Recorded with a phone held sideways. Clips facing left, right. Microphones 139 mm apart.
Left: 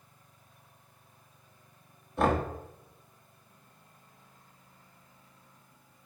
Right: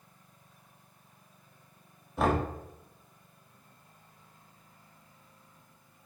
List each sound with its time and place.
2.2 s knocking: centre (ahead or behind), 1.6 m